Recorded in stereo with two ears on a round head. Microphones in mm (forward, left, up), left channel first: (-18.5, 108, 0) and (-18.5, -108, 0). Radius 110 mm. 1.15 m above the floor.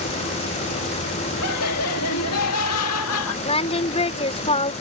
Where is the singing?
25° left (ahead or behind).